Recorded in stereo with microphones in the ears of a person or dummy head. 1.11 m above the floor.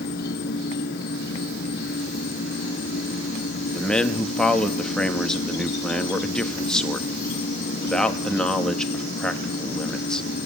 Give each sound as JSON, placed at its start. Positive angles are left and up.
{"t": 0.0, "sound": "an insect", "side_deg": 65, "distance_m": 4.5}
{"t": 3.7, "sound": "a man speaking", "side_deg": 5, "distance_m": 1.7}